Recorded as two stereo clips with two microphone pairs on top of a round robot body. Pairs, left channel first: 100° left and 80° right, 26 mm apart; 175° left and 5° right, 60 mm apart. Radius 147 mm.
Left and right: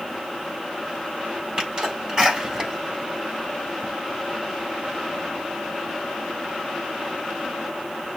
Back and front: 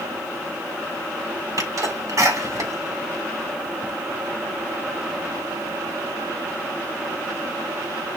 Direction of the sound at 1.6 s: 25° right.